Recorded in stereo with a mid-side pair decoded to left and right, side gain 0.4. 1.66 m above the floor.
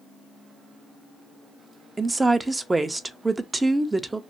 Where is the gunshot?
I don't hear a gunshot.